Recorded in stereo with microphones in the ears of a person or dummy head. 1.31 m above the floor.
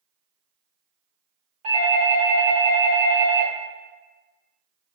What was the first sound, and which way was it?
A doorbell, 25° right (ahead or behind).